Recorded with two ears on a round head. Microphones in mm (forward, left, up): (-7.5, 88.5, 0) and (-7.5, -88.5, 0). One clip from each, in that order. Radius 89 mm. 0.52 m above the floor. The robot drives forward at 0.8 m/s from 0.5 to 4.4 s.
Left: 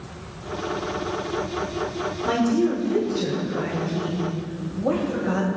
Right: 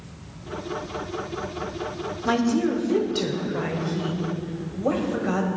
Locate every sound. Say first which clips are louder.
2.2 s a woman speaking: left 1 dB; 45° right (ahead or behind), 1.4 m; by 5.5 s 25° right (ahead or behind), 2.5 m